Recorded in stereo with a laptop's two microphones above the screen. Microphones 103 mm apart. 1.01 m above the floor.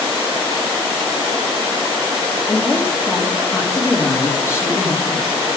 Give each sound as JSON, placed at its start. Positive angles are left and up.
{"t": 2.5, "sound": "a woman speaking", "side_deg": 25, "distance_m": 2.0}